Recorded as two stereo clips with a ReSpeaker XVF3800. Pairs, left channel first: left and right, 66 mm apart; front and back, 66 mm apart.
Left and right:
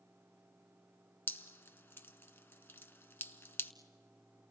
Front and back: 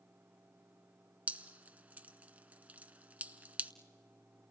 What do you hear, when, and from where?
1.3 s dripping: 130° left, 0.7 m